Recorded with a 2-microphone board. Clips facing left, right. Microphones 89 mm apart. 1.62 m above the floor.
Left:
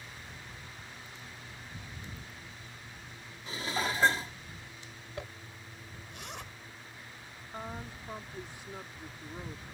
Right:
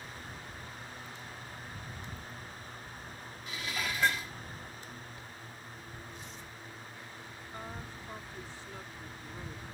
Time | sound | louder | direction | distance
3.5 | dishes clattering | left 4 dB | 35° left (ahead or behind) | ?
5.2 | a zipper | left 4 dB | 85° left | ?
7.5 | a woman speaking | left 3 dB | 15° left (ahead or behind) | ?